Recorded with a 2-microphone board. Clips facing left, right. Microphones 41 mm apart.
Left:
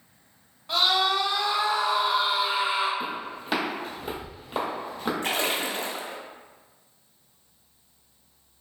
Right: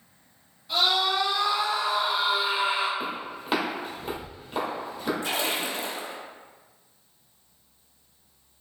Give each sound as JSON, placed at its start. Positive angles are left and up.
{"t": 0.7, "sound": "a scream", "side_deg": 60, "distance_m": 0.9}
{"t": 3.0, "sound": "footsteps", "side_deg": -25, "distance_m": 1.5}
{"t": 5.2, "sound": "a splash", "side_deg": 45, "distance_m": 0.5}